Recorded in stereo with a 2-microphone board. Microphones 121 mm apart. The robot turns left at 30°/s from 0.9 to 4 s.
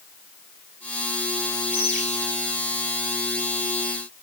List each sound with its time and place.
1.7 s a bird: 15° left (ahead or behind), 4 m; by 2.0 s 10° left (ahead or behind), 4 m